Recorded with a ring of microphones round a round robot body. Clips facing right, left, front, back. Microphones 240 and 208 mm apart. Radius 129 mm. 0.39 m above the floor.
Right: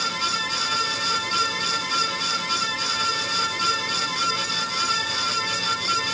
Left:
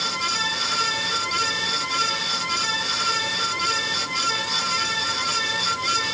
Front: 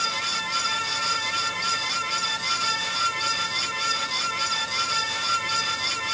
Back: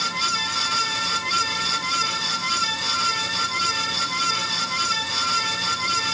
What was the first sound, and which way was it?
Only background noise.